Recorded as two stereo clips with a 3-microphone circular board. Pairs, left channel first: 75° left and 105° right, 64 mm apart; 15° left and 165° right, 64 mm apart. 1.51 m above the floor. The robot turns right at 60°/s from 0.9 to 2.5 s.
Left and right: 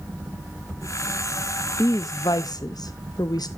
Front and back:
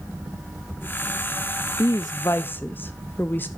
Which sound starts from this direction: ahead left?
A woman speaking, at 1.8 s.